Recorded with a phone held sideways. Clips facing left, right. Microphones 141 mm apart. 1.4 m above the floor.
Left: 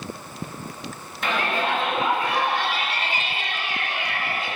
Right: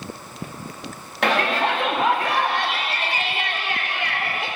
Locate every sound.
1.2 s a shout: 70° right (ahead or behind), 2 m